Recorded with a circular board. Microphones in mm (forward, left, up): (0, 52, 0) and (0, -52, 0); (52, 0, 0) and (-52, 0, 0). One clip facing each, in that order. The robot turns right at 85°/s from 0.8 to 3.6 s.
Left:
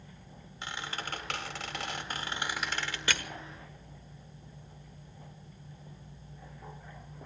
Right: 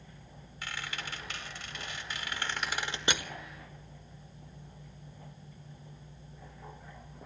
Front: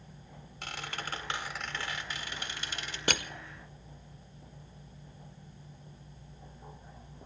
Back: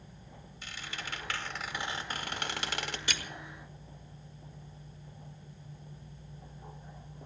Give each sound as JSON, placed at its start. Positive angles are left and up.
{"t": 0.6, "sound": "a squeak", "azimuth_deg": 25, "distance_m": 2.0}
{"t": 3.1, "sound": "crushing", "azimuth_deg": -25, "distance_m": 1.1}